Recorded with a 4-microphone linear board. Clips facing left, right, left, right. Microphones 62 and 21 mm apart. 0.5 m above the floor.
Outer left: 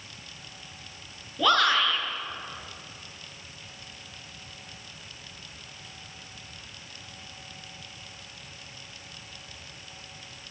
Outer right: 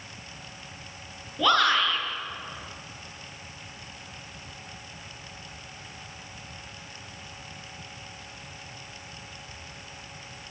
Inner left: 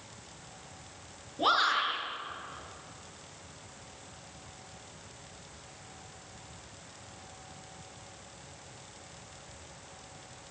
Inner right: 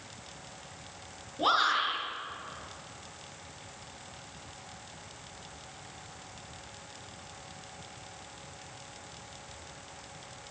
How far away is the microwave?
No microwave in this recording.